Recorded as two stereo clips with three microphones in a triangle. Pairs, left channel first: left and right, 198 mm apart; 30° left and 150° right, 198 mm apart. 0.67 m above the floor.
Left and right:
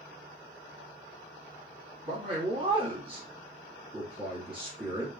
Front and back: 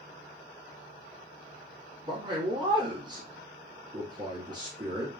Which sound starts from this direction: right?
A man speaking, at 2.0 s.